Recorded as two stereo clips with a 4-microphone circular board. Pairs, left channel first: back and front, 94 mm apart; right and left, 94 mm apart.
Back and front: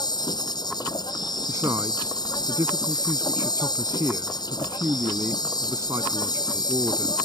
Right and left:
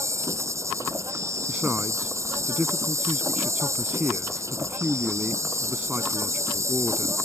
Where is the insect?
145° left.